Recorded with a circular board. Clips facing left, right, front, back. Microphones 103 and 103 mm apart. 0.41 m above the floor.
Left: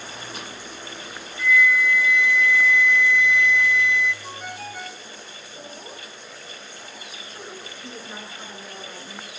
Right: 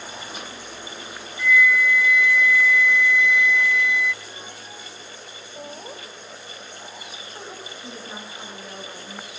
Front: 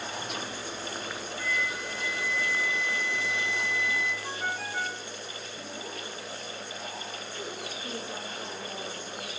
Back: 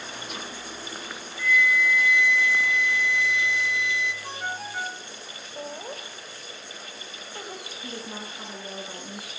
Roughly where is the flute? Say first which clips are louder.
Right 1 dB, back 11 dB; ahead.